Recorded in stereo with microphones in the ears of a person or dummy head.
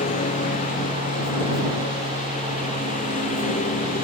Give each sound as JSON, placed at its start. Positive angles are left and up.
{"t": 0.0, "sound": "a lawn mower", "side_deg": 35}